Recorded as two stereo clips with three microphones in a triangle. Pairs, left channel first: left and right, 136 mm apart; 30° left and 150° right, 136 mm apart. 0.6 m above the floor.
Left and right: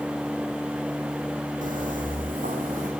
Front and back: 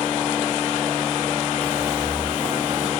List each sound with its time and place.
1.6 s footsteps: 105° right, 2 m; by 2.9 s 100° right, 4 m